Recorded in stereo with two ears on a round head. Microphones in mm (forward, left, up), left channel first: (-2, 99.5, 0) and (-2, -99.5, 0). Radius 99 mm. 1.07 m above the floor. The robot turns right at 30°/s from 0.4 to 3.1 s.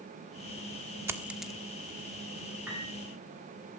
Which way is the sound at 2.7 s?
5° right (ahead or behind).